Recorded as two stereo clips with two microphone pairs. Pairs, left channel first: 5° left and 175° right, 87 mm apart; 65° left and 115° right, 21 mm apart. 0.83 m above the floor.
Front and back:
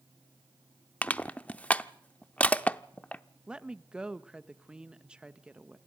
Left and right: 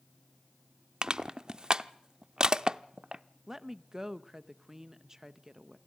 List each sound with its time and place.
1.0 s crushing: 65° right, 0.6 m
3.5 s a woman speaking: 115° right, 0.7 m